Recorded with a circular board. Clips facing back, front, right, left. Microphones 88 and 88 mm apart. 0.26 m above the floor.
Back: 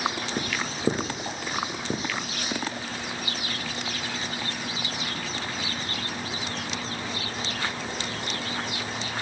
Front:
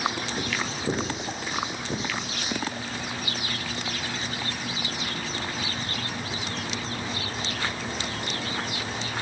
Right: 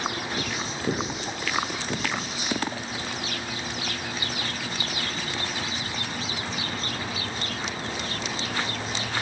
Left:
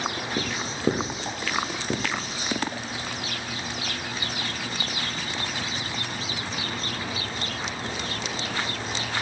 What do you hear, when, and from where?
0.4 s writing: 140° left, 5 m